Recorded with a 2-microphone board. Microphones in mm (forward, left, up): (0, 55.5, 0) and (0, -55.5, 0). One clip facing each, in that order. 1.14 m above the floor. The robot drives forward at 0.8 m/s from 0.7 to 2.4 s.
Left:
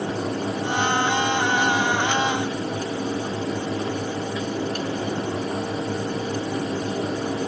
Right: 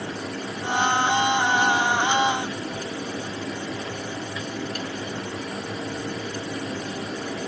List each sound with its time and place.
Only background noise.